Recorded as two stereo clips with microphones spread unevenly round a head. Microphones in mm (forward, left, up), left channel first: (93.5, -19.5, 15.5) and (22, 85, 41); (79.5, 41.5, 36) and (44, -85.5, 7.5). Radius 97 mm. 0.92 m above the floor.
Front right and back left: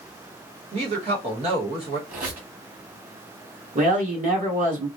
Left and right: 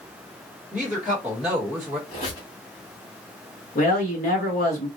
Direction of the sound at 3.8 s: 105° left.